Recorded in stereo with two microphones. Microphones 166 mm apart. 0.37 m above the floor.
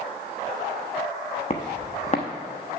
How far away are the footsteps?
About 1.1 m.